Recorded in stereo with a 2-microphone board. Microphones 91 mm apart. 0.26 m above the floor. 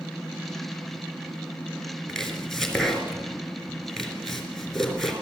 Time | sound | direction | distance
2.1 | chopping | 5° left (ahead or behind) | 4 m